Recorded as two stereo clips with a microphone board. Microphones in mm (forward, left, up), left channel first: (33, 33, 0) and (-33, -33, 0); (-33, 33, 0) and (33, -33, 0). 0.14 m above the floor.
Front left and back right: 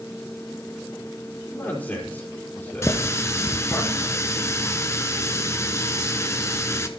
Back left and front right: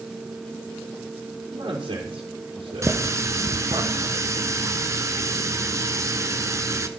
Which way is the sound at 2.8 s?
Straight ahead.